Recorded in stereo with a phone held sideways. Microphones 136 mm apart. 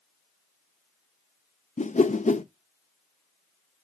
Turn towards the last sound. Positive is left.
turn(degrees=60)  # may be behind; listen again after turning